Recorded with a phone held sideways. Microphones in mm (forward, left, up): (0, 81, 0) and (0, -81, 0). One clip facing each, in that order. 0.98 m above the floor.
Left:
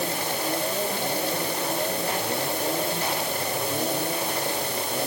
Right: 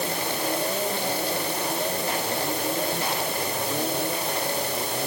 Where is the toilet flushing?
No toilet flushing in this recording.